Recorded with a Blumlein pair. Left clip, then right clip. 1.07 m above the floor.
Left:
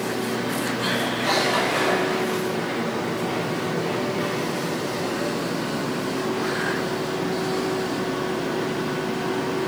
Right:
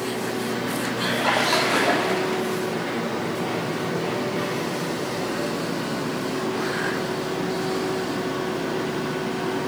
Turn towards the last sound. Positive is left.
turn(degrees=-40)